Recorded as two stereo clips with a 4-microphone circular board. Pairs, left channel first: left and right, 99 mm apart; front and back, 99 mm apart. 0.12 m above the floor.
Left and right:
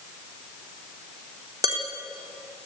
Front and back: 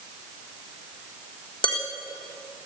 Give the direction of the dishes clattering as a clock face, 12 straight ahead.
1 o'clock.